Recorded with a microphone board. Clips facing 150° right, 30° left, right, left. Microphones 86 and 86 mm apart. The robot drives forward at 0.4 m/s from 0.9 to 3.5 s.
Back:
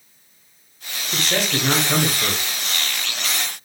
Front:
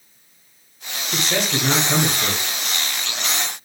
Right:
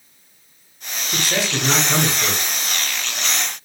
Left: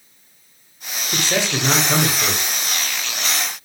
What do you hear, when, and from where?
1.1 s a man speaking: 110° left, 1.0 m; by 2.5 s 150° left, 1.2 m